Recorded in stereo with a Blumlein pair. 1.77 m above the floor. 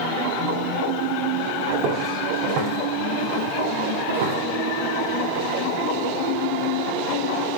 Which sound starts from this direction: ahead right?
Footsteps, at 1.7 s.